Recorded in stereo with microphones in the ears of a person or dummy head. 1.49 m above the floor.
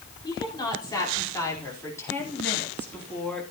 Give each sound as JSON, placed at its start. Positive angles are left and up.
{"t": 0.2, "sound": "a woman speaking", "side_deg": 25, "distance_m": 4.5}